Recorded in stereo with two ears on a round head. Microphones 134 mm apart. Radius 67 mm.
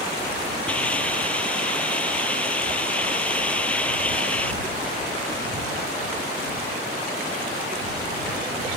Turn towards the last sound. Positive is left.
turn(degrees=10)  # may be behind; listen again after turning